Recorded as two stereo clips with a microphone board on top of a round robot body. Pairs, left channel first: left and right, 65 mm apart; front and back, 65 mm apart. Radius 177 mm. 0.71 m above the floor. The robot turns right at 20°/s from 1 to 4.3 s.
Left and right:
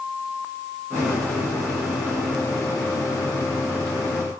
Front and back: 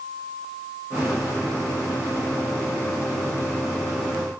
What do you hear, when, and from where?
Only background noise.